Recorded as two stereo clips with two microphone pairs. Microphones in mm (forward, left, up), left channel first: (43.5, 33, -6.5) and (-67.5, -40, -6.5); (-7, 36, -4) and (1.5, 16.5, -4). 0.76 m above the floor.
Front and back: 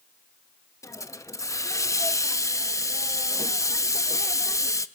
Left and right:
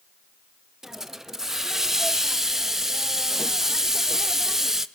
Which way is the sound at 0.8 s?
5° right.